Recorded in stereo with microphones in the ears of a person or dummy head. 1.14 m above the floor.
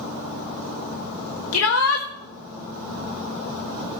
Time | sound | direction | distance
1.5 | a shout | 80° left | 1.3 m